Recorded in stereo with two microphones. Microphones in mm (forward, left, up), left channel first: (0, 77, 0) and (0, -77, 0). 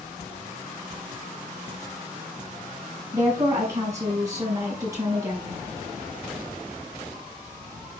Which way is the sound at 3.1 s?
20° right (ahead or behind).